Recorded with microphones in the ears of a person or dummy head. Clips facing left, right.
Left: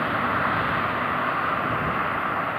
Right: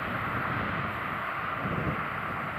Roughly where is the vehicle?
Left.